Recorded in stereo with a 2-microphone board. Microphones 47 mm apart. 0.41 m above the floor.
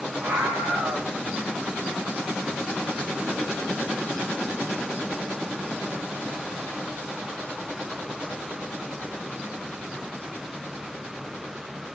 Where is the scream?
65° right (ahead or behind), 3 m.